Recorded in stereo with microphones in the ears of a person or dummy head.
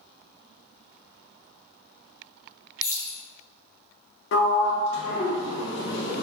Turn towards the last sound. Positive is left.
turn(degrees=75)  # may be behind; listen again after turning